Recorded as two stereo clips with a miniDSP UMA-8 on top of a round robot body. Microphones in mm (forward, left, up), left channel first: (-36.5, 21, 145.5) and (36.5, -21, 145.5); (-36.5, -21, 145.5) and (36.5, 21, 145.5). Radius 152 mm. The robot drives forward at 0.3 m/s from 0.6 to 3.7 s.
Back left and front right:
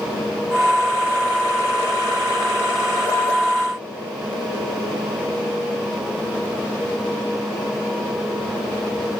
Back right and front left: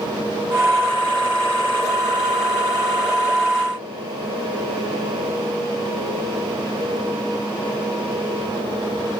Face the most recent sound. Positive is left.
No sound to turn to.